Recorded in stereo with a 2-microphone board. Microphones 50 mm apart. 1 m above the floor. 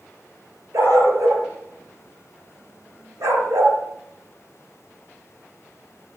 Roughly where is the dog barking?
Right.